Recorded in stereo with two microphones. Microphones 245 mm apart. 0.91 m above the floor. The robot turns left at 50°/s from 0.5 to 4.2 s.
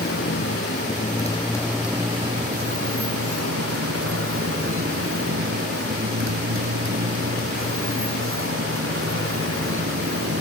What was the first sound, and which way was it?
A motorcycle, 65° left.